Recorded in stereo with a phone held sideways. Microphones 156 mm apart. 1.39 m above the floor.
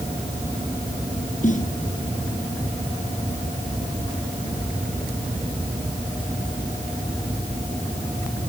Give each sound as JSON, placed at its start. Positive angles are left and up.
{"t": 1.4, "sound": "a snare drum", "side_deg": 55}